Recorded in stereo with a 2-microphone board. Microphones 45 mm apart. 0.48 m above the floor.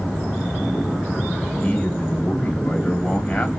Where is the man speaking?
25° left (ahead or behind), 2.5 m.